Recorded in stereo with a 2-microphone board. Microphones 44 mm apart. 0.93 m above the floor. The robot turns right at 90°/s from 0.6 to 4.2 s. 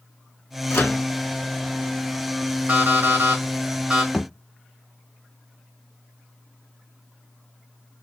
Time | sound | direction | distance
0.7 | a microwave | 80° left | 1.6 m
2.7 | an alarm clock | 120° right | 1.8 m
4.1 | a thud | 5° left (ahead or behind) | 0.8 m